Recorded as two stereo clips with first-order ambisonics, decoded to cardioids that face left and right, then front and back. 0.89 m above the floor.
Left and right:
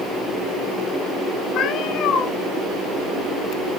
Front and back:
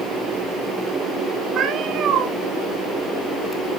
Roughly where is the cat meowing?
Behind left.